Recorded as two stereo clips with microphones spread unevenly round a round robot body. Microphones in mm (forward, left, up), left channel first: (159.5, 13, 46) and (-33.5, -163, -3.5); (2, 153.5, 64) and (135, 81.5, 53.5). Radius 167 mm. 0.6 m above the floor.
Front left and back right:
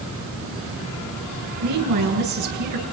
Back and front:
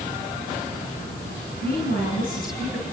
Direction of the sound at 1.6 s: 155° right.